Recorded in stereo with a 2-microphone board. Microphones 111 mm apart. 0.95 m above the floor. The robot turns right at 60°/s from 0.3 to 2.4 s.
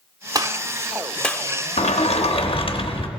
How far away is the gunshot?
About 0.8 m.